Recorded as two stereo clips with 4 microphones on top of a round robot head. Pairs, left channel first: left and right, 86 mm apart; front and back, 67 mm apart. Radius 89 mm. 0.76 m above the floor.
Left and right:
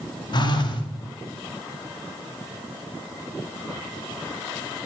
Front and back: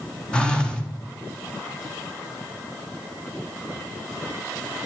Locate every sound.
0.3 s a phone buzzing: 70° left, 1.7 m